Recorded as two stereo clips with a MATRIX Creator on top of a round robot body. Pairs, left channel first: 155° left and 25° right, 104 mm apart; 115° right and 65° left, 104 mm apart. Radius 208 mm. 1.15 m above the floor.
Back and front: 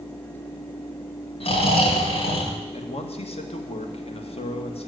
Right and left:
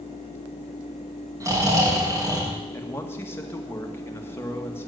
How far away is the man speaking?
About 2 m.